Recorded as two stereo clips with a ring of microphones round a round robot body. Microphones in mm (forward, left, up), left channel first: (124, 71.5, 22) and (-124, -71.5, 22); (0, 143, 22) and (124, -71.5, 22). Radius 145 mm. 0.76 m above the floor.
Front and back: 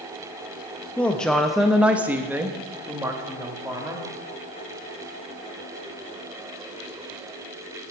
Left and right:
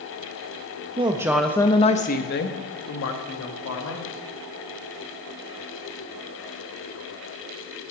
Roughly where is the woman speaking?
Ahead right.